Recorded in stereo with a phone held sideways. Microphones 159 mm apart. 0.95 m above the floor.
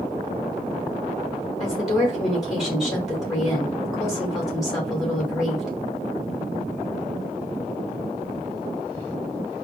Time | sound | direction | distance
1.6 | a woman speaking | centre (ahead or behind) | 3.5 m